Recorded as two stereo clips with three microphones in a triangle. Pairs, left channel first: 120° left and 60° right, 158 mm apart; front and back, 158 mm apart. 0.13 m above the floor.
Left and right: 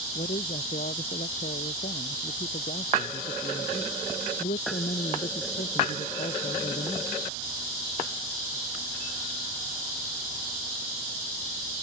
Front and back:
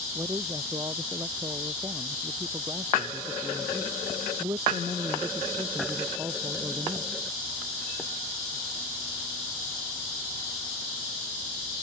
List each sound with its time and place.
0.1 s a man speaking: 115° left